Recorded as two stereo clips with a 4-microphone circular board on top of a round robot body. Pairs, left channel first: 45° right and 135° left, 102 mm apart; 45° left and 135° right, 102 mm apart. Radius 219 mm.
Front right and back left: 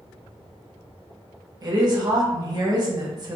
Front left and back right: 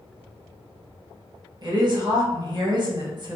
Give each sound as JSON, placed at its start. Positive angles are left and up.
{"t": 1.6, "sound": "a woman speaking", "azimuth_deg": -175, "distance_m": 1.2}